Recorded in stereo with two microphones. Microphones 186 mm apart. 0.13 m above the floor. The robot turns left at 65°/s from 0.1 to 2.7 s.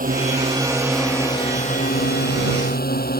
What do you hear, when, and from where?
0.0 s a drone: 125° right; by 3.2 s 65° left